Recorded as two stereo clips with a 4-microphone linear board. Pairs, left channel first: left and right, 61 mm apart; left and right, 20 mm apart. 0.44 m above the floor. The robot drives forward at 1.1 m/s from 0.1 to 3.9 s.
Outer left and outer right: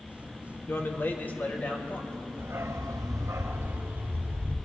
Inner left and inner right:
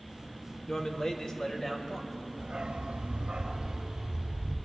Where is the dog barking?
40° right (ahead or behind), 1.0 m; by 4.6 s 35° right (ahead or behind), 1.2 m.